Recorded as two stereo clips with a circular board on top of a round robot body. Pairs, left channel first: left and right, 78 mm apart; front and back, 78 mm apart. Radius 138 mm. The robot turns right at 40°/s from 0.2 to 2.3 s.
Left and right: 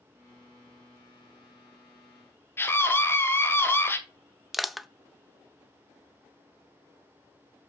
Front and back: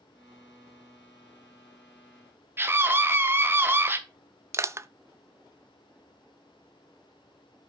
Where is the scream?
135° left, 1.8 m.